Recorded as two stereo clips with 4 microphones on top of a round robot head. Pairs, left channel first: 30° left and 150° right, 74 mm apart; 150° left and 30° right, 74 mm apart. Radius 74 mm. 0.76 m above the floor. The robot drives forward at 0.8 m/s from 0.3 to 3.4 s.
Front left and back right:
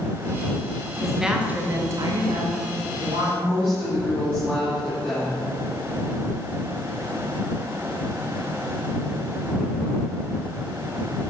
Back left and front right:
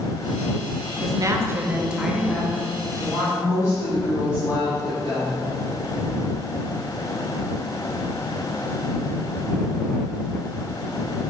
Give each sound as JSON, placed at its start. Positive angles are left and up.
{"t": 1.0, "sound": "a woman speaking", "azimuth_deg": -60, "distance_m": 1.0}
{"t": 3.4, "sound": "a woman speaking", "azimuth_deg": 115, "distance_m": 1.7}